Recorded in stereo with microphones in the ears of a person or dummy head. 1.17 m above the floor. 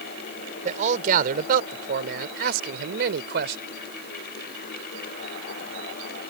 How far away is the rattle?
No rattle in this recording.